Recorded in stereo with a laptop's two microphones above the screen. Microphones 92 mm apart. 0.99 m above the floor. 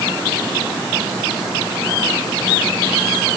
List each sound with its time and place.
Only background noise.